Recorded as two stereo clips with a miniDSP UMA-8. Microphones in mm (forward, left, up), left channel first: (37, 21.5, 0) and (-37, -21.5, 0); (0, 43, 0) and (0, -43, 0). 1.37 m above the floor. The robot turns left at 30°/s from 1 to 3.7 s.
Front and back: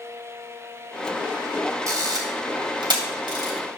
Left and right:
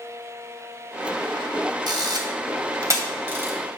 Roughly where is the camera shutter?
Right.